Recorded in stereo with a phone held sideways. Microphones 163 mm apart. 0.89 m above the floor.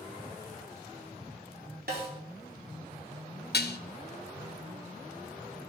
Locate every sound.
1.9 s a snare drum: 75° right (ahead or behind), 3.5 m
3.5 s dishes clattering: 80° left, 0.6 m